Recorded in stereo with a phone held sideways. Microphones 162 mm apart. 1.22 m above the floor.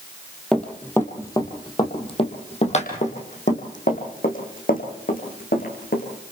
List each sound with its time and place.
0.5 s running footsteps: 5° left (ahead or behind), 2 m; by 6.0 s 65° left (ahead or behind), 5.5 m